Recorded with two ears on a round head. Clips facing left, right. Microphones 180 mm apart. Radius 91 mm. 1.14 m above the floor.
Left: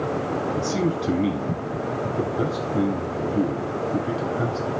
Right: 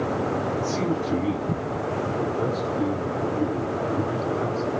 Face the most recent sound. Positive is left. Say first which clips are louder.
# left 1 dB
turn(degrees=90)